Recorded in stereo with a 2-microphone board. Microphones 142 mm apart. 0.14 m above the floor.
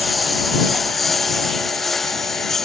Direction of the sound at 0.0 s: Centre (ahead or behind).